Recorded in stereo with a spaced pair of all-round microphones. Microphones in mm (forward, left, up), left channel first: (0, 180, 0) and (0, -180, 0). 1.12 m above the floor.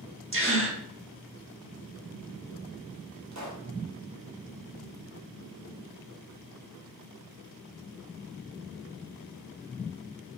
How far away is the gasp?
About 0.8 m.